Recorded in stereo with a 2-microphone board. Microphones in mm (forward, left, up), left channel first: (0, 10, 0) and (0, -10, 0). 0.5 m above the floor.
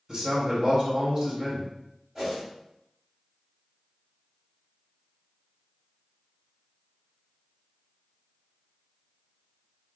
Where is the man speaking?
30° right (ahead or behind), 0.8 m.